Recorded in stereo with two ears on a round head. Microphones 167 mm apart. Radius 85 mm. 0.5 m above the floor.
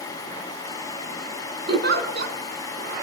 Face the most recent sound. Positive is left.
turn(degrees=-55)  # may be behind; listen again after turning